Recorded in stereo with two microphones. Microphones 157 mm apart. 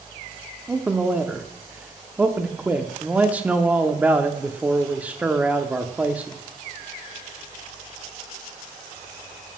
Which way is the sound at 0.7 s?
10° right (ahead or behind).